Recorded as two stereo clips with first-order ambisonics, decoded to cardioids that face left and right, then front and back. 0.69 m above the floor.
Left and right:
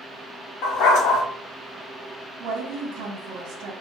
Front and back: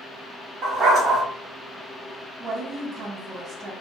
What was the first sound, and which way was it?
A dog barking, 120° left.